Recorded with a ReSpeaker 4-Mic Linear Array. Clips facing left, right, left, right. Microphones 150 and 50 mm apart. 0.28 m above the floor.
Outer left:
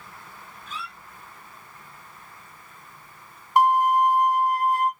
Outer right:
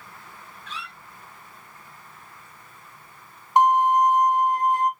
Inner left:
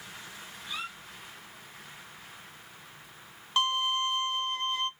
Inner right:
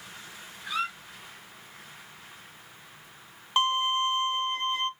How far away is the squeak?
About 2 m.